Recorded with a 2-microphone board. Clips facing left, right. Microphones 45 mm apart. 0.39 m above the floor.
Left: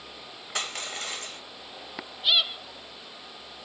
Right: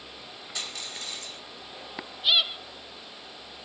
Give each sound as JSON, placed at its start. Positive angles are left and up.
{"t": 0.6, "sound": "crushing", "side_deg": 50, "distance_m": 1.1}